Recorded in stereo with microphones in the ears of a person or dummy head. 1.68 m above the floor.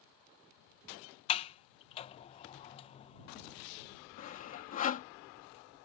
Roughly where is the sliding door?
Left.